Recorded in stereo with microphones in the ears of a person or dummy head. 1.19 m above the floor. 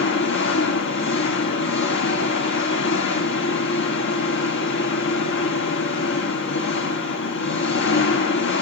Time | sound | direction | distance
0.0 | an engine running | 65° left (ahead or behind) | 2 m